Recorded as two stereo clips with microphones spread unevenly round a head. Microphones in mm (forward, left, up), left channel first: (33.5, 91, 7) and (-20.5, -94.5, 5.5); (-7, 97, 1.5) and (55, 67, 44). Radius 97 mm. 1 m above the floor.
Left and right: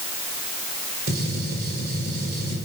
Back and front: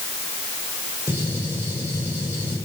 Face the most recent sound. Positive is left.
turn(degrees=-150)